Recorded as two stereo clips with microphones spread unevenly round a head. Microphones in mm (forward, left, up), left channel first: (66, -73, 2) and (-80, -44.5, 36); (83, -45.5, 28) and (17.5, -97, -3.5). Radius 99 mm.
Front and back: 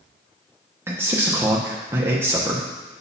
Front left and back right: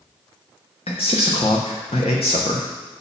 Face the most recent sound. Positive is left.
turn(degrees=90)